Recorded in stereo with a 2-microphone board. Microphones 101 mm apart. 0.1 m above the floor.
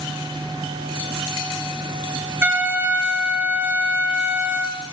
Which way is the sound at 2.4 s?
15° right (ahead or behind).